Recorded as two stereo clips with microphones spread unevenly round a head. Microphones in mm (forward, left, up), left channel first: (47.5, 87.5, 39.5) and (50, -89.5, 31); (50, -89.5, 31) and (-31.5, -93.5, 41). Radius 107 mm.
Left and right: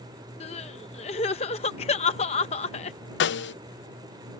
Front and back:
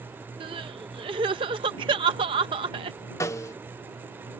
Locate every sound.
0.4 s crying: 150° left
3.2 s a snare drum: 65° left